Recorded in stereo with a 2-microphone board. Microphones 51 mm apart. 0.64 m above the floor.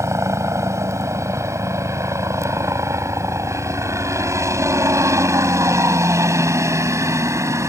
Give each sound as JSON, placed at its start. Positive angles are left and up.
{"t": 0.0, "sound": "a helicopter", "side_deg": -65}